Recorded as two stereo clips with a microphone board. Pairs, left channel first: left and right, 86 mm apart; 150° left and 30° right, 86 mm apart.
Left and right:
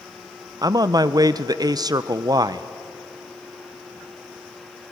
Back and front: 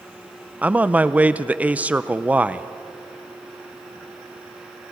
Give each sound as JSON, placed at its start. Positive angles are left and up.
{"t": 0.6, "sound": "a man speaking", "azimuth_deg": -95, "distance_m": 0.7}